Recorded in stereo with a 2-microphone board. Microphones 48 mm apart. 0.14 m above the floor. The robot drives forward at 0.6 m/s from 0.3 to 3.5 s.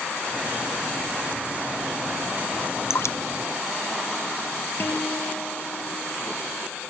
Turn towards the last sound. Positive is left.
turn(degrees=45)  # may be behind; listen again after turning